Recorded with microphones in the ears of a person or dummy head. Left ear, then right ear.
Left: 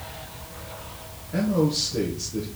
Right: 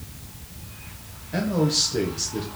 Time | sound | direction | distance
1.3 | a man speaking | 30° right (ahead or behind) | 1.2 m